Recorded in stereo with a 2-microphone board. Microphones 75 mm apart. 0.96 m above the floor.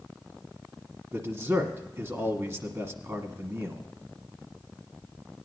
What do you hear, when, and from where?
1.1 s a man speaking: 35° right (ahead or behind), 1.4 m